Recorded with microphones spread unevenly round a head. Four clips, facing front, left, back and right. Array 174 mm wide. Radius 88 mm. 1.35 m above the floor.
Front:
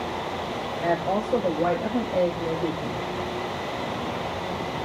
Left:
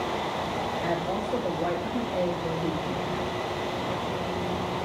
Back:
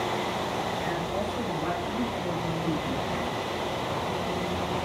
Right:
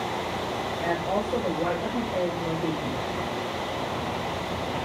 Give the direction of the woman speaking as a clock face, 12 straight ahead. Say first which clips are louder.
Right 2 dB, front 5 dB; 1 o'clock.